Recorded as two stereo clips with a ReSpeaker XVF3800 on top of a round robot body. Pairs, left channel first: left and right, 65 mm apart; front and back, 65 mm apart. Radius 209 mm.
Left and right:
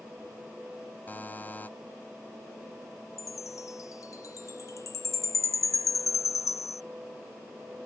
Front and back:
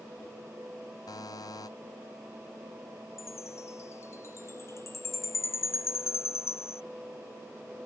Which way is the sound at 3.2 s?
55° left.